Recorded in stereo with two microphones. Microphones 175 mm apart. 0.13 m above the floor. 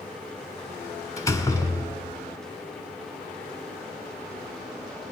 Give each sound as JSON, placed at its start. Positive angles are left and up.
{"t": 1.2, "sound": "a door slam", "side_deg": 20, "distance_m": 0.7}